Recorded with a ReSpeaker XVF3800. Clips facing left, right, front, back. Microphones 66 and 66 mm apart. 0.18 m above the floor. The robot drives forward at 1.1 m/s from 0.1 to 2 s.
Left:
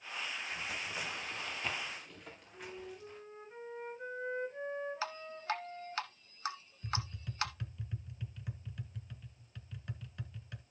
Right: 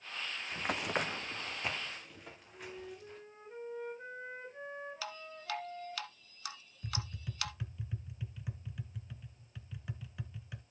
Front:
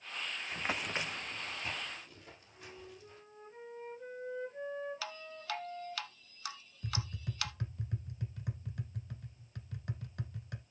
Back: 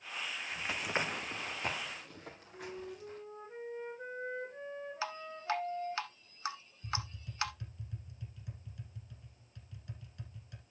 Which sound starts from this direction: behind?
A flute, at 2.5 s.